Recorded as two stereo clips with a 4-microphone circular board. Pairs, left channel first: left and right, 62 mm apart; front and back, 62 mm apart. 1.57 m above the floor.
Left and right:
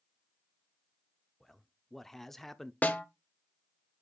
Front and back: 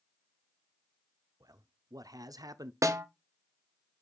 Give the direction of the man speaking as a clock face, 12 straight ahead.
6 o'clock.